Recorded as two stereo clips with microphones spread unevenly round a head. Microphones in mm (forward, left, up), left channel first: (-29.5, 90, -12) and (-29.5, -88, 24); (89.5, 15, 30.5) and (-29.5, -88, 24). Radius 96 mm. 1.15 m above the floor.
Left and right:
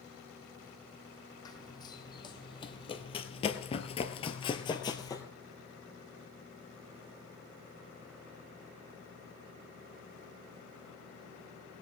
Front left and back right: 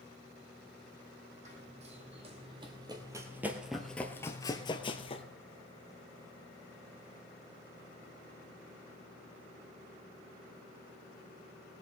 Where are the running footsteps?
165° left, 2.5 m; by 5.2 s 10° left, 1.5 m.